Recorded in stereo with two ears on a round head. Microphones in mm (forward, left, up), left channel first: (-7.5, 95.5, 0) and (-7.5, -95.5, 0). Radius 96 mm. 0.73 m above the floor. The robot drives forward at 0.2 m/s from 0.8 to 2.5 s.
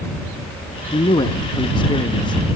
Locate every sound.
0.9 s a man speaking: 25° left (ahead or behind), 0.8 m